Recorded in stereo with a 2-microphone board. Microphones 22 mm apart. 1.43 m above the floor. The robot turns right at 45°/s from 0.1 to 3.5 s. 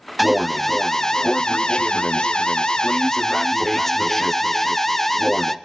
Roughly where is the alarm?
Ahead.